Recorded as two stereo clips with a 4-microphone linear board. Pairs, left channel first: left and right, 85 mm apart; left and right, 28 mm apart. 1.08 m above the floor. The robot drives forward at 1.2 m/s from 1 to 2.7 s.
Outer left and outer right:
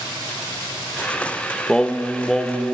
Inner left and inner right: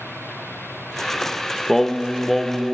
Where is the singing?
10° left (ahead or behind), 0.9 m; by 2.7 s 5° left (ahead or behind), 2 m.